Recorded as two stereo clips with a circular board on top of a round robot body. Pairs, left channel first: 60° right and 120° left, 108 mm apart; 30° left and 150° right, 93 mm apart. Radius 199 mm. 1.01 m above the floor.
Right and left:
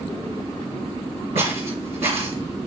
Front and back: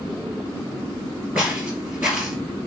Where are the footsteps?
135° left, 2 m.